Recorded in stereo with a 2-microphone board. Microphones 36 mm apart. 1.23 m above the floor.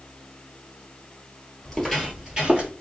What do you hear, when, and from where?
1.6 s footsteps: 10° left (ahead or behind), 1.3 m; by 2.7 s 30° right (ahead or behind), 1.6 m